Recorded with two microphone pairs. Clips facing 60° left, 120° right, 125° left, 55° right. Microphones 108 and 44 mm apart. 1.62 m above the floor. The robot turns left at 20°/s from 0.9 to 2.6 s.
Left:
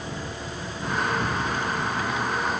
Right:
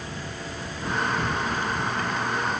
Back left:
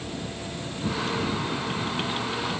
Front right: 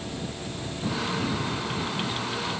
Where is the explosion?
No explosion in this recording.